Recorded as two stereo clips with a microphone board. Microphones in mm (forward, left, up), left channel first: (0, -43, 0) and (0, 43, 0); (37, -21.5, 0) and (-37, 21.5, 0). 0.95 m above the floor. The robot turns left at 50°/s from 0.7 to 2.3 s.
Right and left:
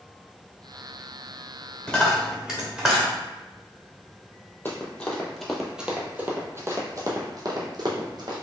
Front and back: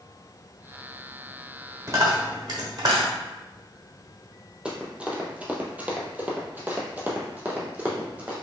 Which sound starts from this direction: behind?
A dropped coin, at 1.9 s.